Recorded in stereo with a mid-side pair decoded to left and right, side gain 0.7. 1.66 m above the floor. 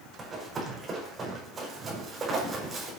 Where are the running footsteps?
25° right, 6 m.